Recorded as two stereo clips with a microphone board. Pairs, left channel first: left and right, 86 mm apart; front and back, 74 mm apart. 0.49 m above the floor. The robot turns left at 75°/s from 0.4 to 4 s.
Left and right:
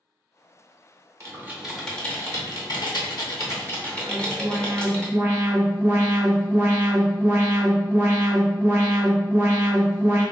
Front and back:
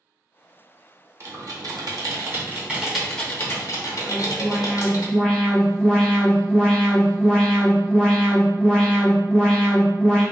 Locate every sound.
1.2 s typing on a keyboard: 140° right, 0.8 m; by 5.0 s 10° left, 0.8 m
4.0 s an alarm: 60° right, 0.8 m